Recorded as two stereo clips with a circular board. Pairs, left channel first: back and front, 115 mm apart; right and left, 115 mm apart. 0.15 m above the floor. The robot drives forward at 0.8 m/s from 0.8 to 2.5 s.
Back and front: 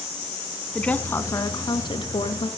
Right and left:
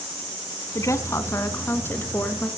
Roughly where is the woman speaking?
Right.